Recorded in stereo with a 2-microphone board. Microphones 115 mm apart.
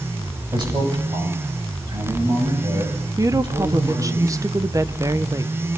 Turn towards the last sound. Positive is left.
turn(degrees=-30)  # may be behind; listen again after turning